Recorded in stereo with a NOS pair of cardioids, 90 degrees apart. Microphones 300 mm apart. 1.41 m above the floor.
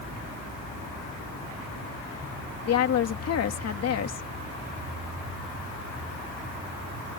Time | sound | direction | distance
2.6 | a woman speaking | 55° left | ?